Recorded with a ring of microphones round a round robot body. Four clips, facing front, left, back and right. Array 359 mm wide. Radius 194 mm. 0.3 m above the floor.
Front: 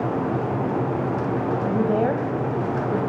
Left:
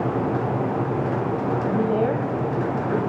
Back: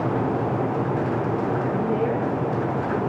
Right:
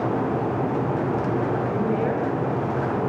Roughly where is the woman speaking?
Ahead left.